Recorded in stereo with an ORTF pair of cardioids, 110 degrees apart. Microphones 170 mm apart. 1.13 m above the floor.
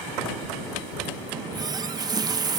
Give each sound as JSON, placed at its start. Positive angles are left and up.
{"t": 1.3, "sound": "a running tap", "azimuth_deg": -25}